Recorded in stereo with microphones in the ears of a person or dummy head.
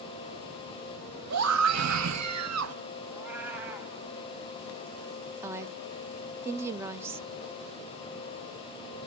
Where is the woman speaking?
15° right (ahead or behind), 0.5 m.